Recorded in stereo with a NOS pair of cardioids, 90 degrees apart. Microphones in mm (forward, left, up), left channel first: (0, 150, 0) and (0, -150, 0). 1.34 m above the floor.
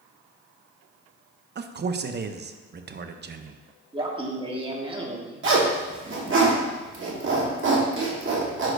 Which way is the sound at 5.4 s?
40° right.